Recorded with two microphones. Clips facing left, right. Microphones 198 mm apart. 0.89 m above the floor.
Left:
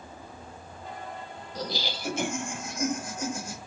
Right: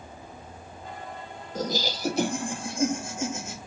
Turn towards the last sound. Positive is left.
turn(degrees=-20)  # may be behind; listen again after turning